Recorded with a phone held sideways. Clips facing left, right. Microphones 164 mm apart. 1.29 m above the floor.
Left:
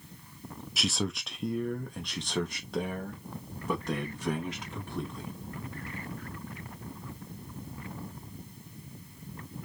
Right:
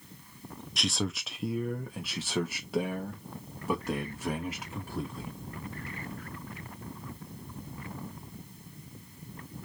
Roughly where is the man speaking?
Centre.